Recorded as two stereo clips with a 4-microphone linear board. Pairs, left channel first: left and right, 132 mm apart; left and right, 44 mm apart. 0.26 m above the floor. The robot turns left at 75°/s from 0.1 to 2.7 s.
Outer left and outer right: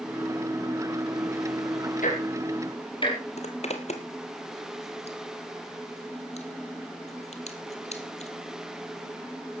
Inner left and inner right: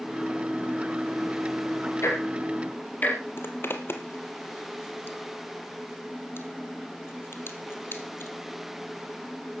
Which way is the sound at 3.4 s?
55° left (ahead or behind).